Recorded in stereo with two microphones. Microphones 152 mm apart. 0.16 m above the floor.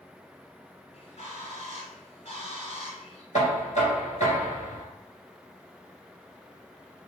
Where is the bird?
50° left (ahead or behind), 1.2 m.